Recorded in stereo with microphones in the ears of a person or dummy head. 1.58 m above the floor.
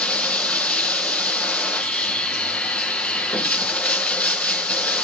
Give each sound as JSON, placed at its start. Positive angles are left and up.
{"t": 0.0, "sound": "running water", "side_deg": 10, "distance_m": 1.0}